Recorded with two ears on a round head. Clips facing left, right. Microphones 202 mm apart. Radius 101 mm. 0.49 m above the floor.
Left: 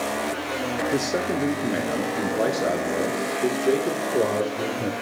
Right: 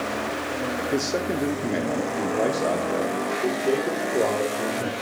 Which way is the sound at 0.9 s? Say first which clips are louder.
Right 1 dB; centre (ahead or behind).